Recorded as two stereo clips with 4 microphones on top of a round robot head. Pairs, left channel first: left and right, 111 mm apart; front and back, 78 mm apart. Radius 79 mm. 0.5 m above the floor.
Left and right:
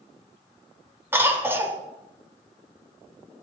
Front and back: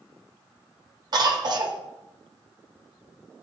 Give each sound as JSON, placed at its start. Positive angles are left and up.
{"t": 1.1, "sound": "a cough", "azimuth_deg": -155, "distance_m": 2.5}